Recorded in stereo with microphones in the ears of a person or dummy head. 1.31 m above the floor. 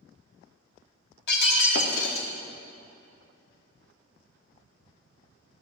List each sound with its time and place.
1.3 s breaking glass: 60° left (ahead or behind), 1.2 m